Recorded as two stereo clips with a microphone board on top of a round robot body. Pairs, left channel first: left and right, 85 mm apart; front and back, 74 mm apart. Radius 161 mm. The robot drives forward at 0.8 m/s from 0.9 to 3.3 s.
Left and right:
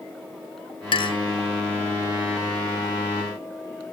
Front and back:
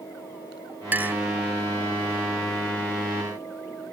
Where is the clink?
115° left.